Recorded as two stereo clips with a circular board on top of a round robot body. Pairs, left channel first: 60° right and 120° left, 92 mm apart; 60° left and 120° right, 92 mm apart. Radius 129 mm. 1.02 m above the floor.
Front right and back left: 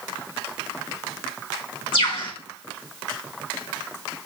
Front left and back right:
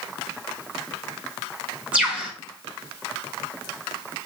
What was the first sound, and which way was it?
A bird, 45° right.